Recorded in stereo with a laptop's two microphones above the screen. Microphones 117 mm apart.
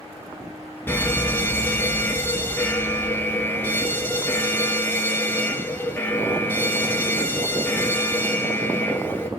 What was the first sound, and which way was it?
A fire alarm, 15° left (ahead or behind).